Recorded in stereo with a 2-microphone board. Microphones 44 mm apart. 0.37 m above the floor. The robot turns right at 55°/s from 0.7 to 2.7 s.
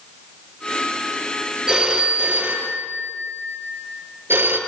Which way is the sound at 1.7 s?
15° right (ahead or behind).